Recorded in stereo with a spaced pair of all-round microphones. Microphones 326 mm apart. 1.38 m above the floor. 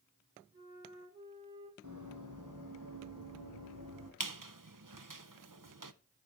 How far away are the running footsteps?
About 3.5 m.